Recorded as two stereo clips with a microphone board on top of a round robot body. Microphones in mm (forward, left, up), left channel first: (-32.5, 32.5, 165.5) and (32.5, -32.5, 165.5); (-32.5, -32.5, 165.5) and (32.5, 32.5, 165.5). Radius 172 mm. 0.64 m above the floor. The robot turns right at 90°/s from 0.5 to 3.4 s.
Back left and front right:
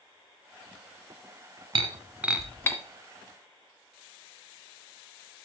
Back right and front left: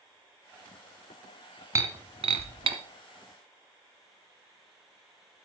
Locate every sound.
1.8 s breaking glass: 15° right, 1.3 m; by 2.8 s 75° left, 1.3 m